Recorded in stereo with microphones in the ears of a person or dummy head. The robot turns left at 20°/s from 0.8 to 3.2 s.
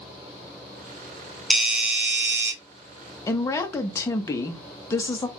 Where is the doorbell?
5° right (ahead or behind), 0.6 m; by 2.5 s 15° right (ahead or behind), 0.6 m.